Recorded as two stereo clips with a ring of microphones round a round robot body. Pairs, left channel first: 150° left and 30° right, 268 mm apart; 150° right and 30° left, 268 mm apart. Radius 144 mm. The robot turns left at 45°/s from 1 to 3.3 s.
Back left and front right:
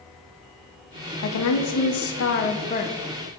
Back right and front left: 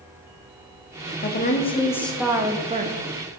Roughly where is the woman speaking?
Behind.